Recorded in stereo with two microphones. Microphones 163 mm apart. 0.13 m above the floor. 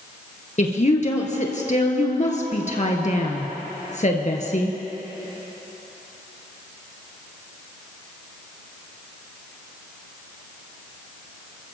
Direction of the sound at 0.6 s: 45° left (ahead or behind).